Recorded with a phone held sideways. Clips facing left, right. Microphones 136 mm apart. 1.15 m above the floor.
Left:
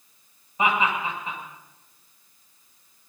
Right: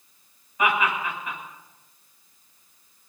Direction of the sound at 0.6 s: 30° left (ahead or behind).